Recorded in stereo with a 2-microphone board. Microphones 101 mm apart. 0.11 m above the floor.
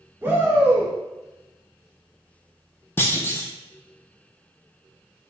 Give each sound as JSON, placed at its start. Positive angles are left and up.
{"t": 0.2, "sound": "a shout", "side_deg": -20, "distance_m": 1.1}
{"t": 3.0, "sound": "a clunk", "side_deg": 25, "distance_m": 0.9}